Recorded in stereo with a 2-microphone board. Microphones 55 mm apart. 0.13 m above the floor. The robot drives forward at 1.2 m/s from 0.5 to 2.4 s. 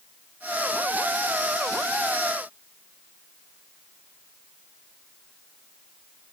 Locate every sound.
Only background noise.